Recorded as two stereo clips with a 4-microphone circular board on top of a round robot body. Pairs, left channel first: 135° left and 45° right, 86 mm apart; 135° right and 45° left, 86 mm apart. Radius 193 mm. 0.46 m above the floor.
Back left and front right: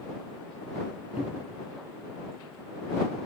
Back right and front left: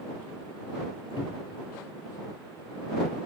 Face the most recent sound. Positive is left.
turn(degrees=-115)